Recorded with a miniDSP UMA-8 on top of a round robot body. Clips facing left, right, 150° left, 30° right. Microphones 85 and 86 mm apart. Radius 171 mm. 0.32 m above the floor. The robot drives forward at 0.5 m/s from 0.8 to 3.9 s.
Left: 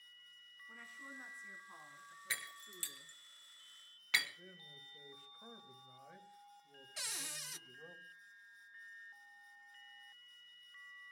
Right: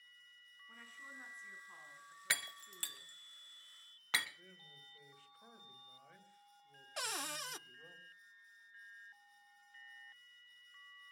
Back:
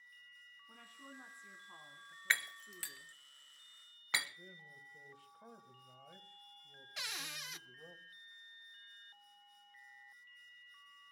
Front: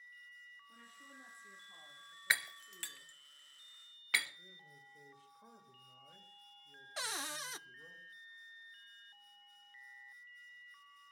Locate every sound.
0.7 s a woman speaking: 175° left, 4 m
2.3 s breaking glass: 110° right, 0.9 m; by 4.3 s 145° right, 1.4 m
4.4 s a man speaking: 165° left, 3.5 m
7.0 s a cupboard door: 80° right, 0.6 m